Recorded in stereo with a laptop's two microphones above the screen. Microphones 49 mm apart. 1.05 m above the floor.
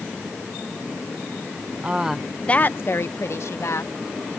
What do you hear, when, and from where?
1.8 s a woman speaking: 25° right (ahead or behind); by 3.9 s 70° left (ahead or behind)